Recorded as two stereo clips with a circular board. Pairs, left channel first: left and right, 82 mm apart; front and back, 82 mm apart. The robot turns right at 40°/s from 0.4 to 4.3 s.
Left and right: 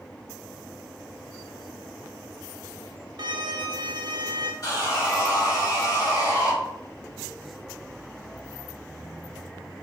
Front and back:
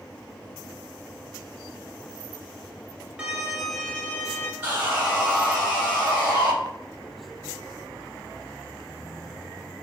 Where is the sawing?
105° left, 1.4 m.